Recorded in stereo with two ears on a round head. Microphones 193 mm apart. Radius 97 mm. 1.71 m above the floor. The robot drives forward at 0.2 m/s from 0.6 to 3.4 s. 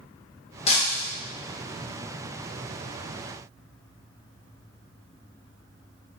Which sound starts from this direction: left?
Breaking glass, at 0.7 s.